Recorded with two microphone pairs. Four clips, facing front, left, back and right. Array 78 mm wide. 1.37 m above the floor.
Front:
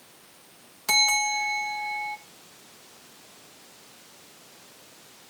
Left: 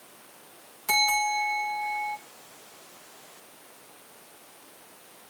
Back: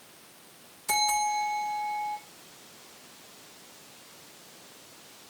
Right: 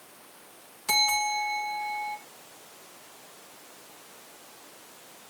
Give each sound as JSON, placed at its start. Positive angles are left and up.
{"t": 0.9, "sound": "a bell", "azimuth_deg": -10, "distance_m": 2.0}